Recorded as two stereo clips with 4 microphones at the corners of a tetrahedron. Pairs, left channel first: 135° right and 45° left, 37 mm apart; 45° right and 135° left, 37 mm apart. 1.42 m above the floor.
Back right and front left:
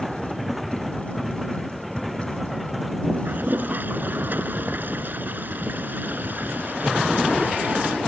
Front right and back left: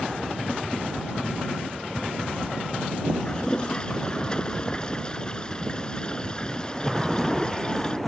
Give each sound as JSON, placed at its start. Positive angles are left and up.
{"t": 3.2, "sound": "a toilet flushing", "azimuth_deg": 20}